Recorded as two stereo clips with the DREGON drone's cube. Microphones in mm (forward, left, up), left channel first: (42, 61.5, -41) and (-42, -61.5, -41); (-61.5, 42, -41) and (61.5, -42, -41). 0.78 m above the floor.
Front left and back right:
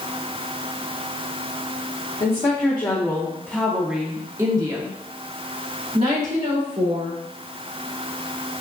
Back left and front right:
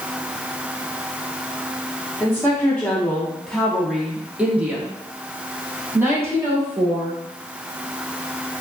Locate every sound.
2.2 s a woman speaking: 80° left, 1.3 m; by 7.2 s 100° right, 2.5 m